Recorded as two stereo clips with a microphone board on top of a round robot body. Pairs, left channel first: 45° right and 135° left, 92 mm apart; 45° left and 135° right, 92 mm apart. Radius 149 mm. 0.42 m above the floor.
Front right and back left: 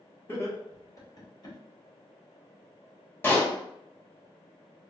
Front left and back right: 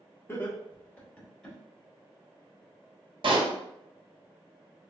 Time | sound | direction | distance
0.3 | laughter | 5° right | 1.5 m
3.2 | a pop | 110° right | 1.0 m